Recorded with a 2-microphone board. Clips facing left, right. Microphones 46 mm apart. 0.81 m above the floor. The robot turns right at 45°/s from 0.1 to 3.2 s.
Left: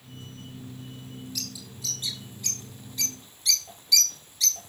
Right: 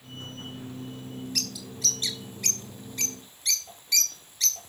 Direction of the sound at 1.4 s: 55° right (ahead or behind).